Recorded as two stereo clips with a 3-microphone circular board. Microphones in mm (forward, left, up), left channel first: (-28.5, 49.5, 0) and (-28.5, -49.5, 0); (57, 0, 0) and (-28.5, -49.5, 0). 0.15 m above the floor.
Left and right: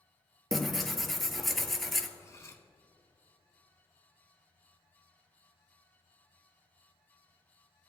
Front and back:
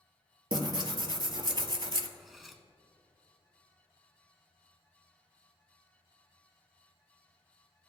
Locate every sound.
0.5 s tearing paper: straight behind, 0.6 m
2.2 s cutlery clinking: 120° left, 0.7 m